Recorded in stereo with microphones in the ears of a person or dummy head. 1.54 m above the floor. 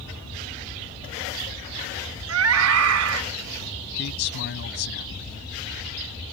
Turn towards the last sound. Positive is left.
turn(degrees=65)  # may be behind; listen again after turning